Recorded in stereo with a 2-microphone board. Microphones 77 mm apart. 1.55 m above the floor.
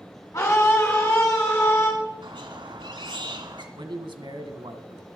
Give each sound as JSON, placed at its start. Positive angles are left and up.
{"t": 0.3, "sound": "a scream", "side_deg": 40, "distance_m": 4.5}
{"t": 2.2, "sound": "a squeak", "side_deg": -80, "distance_m": 2.0}
{"t": 3.8, "sound": "a man speaking", "side_deg": -85, "distance_m": 1.6}